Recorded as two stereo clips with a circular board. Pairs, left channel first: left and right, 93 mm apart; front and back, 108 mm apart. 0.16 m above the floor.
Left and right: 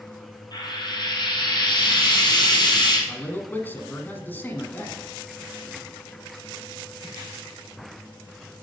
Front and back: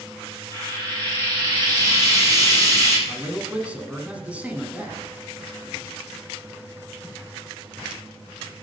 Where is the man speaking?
120° left, 1.3 m.